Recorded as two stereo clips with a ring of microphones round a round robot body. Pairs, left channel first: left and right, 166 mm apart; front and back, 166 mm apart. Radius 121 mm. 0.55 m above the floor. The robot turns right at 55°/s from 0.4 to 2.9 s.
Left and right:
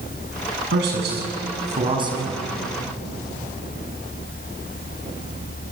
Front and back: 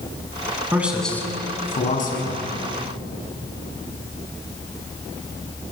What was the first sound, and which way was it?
A man speaking, 105° right.